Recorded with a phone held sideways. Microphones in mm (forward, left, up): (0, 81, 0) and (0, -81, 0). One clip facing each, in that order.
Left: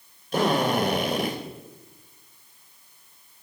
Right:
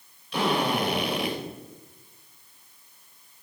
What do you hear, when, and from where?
0.3 s a drill: 45° left (ahead or behind), 4.5 m